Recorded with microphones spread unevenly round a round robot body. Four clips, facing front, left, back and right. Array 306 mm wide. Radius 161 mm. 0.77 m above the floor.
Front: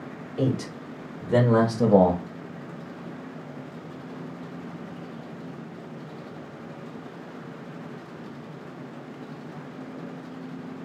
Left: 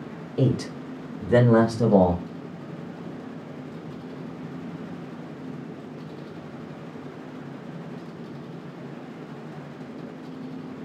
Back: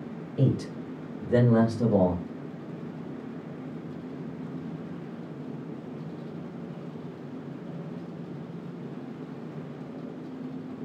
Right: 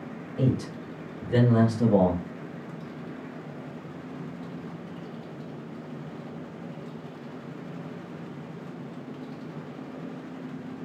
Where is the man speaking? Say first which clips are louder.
Left 3 dB, front 1 dB; 105° left, 1.8 m; by 2.2 s 5° left, 1.2 m.